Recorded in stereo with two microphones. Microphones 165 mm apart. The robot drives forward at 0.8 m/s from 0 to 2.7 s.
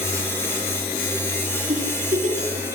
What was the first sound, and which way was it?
A giggle, 45° right (ahead or behind).